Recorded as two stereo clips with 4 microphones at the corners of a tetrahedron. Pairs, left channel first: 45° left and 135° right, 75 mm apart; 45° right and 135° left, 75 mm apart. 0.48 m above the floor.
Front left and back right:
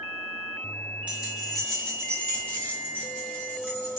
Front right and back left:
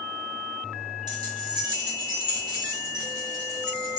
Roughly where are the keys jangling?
Behind left.